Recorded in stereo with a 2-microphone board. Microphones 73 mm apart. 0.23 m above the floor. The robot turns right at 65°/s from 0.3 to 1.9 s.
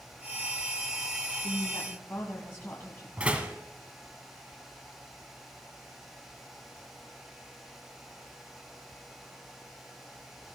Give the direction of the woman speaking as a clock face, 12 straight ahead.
9 o'clock.